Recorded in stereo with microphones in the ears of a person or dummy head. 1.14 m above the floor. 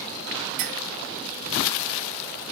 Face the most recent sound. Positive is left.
turn(degrees=-50)  # may be behind; listen again after turning